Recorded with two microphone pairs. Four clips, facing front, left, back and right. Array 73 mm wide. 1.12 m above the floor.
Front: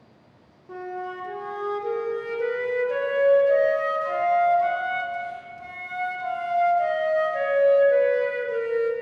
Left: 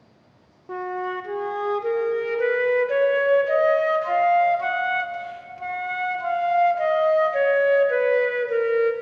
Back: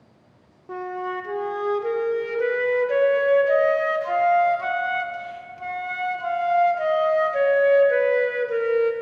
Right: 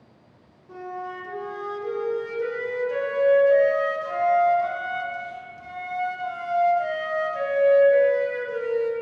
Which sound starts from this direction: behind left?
A flute, at 0.7 s.